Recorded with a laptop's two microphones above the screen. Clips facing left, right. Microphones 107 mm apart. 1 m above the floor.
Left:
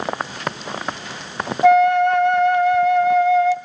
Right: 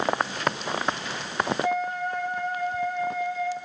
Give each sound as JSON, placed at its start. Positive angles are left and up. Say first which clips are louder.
{"t": 1.6, "sound": "a flute", "louder": "left 14 dB", "side_deg": 90, "distance_m": 0.7}